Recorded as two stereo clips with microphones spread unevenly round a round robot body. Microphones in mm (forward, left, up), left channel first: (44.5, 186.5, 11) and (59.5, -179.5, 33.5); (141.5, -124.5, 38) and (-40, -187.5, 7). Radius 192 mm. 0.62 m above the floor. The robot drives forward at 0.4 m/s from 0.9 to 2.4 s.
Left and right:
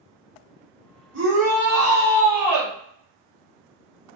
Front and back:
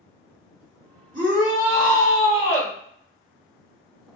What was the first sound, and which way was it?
A shout, 155° right.